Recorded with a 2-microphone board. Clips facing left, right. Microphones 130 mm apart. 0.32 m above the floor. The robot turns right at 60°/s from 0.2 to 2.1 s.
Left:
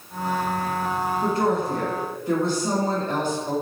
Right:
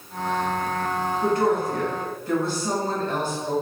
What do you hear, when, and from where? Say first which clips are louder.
1.2 s a woman speaking: right 2 dB; 90° left, 1.6 m; by 3.5 s 145° left, 1.6 m